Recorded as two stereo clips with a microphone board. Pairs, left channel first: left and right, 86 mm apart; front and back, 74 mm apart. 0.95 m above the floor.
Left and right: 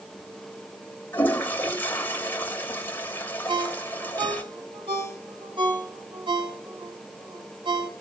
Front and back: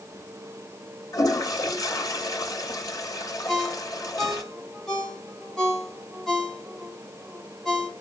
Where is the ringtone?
85° right, 3.5 m.